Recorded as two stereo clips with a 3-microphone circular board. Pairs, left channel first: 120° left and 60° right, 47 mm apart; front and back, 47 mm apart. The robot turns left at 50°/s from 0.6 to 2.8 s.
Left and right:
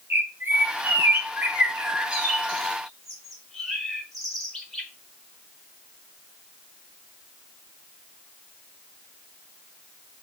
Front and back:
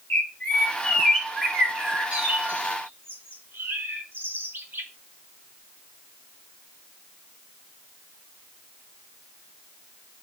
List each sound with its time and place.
0.1 s a bird: 40° right, 1.7 m; by 4.9 s 150° right, 1.7 m